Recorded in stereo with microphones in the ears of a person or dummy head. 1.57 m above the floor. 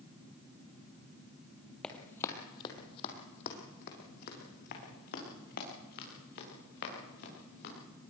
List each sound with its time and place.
1.8 s running footsteps: 5° left (ahead or behind), 2 m; by 7.7 s 60° left (ahead or behind), 9 m